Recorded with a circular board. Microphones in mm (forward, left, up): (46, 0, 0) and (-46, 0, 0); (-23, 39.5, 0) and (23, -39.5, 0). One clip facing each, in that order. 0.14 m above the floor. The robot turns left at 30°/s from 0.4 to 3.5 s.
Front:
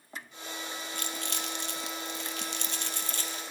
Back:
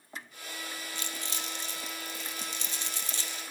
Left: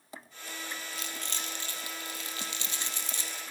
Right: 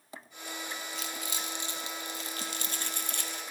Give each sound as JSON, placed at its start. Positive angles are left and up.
{"t": 0.9, "sound": "crumpling", "azimuth_deg": 30, "distance_m": 0.7}